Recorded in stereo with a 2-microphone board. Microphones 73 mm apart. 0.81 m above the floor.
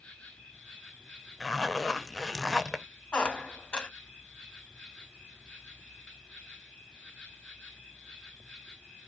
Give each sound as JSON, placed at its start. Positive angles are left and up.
{"t": 0.0, "sound": "an insect", "side_deg": 15, "distance_m": 1.2}
{"t": 1.4, "sound": "a zipper", "side_deg": 0, "distance_m": 0.6}
{"t": 3.1, "sound": "a squeak", "side_deg": 15, "distance_m": 0.7}